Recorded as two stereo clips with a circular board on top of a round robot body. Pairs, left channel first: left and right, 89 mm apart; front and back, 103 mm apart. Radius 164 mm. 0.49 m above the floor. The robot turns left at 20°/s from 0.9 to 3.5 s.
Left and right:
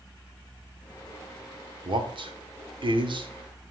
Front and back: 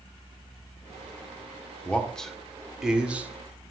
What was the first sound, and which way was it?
A man speaking, 75° right.